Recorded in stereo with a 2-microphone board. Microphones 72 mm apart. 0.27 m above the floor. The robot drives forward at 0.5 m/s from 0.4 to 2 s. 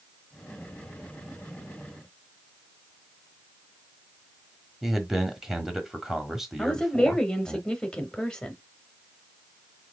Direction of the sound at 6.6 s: 10° left (ahead or behind).